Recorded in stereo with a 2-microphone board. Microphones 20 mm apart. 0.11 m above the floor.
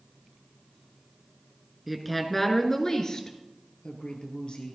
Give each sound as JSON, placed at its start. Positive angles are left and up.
{"t": 1.9, "sound": "a woman speaking", "side_deg": -5, "distance_m": 1.1}